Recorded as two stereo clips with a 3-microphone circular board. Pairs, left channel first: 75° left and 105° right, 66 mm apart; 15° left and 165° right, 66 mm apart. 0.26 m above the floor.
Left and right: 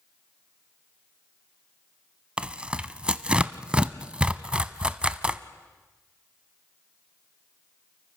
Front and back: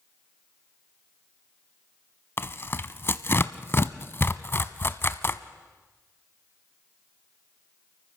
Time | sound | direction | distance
2.4 | tearing paper | 30° right | 0.6 m